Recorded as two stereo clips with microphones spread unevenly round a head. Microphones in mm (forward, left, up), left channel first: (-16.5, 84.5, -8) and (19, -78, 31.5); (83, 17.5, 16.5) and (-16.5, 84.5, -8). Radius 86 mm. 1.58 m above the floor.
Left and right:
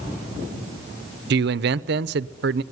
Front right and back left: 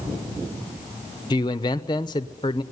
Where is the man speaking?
100° right, 0.8 m.